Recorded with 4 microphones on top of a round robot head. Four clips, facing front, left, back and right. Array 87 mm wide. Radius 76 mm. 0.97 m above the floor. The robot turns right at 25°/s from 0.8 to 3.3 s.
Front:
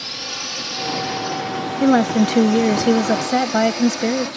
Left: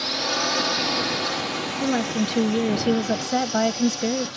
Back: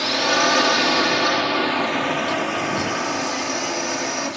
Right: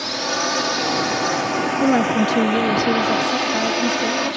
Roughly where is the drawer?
I don't hear a drawer.